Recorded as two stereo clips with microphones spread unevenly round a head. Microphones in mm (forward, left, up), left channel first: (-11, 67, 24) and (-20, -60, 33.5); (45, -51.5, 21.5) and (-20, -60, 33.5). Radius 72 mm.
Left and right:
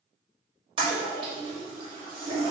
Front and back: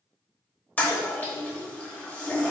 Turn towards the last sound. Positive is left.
turn(degrees=-45)